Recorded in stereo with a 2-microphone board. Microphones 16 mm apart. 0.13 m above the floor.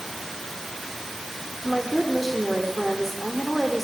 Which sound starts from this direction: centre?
A woman speaking, at 1.6 s.